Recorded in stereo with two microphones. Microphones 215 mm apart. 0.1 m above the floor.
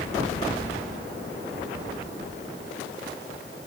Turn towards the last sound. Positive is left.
No sound to turn to.